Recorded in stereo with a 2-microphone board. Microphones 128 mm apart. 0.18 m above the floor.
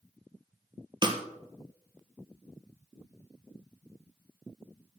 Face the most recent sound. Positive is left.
turn(degrees=-35)  # may be behind; listen again after turning